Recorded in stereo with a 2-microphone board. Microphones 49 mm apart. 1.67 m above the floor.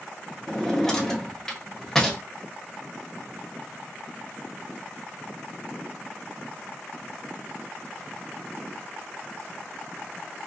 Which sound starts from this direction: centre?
A drawer, at 0.5 s.